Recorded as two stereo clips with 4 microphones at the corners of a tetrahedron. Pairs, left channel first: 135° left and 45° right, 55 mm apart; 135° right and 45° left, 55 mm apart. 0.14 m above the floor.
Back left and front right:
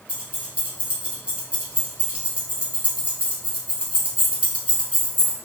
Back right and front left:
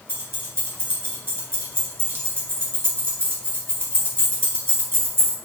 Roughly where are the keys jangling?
Ahead.